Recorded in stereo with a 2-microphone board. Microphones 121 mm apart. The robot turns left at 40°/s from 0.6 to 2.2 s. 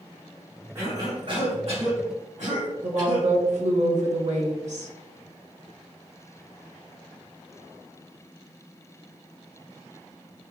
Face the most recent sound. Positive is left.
turn(degrees=-70)  # may be behind; listen again after turning